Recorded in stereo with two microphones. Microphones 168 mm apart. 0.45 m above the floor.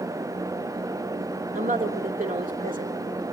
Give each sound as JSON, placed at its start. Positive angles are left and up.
{"t": 1.5, "sound": "a woman speaking", "side_deg": -50, "distance_m": 1.2}